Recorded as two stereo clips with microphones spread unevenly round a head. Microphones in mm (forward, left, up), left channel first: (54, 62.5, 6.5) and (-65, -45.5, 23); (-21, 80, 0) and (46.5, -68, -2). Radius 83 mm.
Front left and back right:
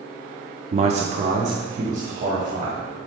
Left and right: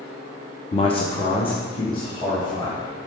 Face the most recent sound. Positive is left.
turn(degrees=180)